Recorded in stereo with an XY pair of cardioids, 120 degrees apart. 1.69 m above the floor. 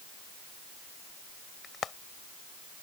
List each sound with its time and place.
1.6 s frying: 40° left